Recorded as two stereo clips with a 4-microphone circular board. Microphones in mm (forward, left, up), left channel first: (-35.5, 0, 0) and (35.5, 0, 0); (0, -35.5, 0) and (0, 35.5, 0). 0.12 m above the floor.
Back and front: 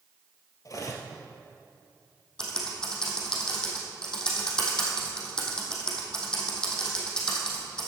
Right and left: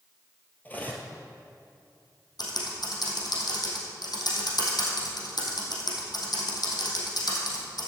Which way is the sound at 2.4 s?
100° right.